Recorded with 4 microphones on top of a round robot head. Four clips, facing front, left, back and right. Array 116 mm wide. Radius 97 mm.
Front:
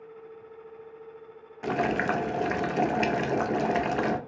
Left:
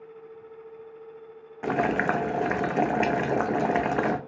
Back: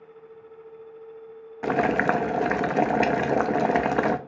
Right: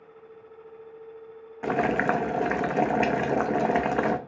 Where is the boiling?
Straight behind, 0.5 m.